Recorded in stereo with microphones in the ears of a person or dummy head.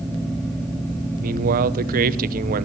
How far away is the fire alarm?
No fire alarm in this recording.